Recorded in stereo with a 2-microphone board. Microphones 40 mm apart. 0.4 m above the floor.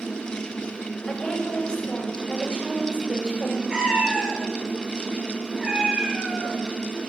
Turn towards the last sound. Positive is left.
turn(degrees=-20)  # may be behind; listen again after turning